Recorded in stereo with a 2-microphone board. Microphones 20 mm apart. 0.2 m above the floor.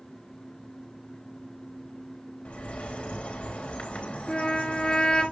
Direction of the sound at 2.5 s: 85° left.